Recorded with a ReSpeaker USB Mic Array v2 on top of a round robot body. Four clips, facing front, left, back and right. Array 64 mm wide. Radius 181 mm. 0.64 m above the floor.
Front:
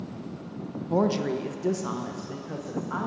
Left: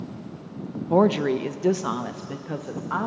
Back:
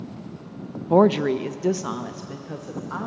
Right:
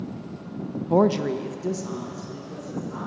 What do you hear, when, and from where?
0.9 s a woman speaking: 175° left, 0.6 m; by 3.1 s 95° left, 1.2 m